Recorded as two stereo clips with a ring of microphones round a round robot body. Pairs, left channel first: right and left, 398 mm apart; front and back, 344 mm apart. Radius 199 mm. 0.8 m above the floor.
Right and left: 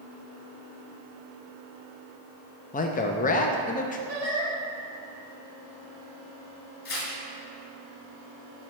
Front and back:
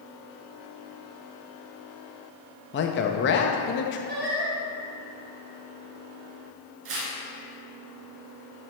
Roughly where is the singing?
Behind left.